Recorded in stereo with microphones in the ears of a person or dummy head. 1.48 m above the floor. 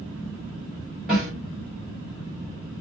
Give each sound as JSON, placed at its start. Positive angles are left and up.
{"t": 1.1, "sound": "a snare drum", "side_deg": 0, "distance_m": 1.7}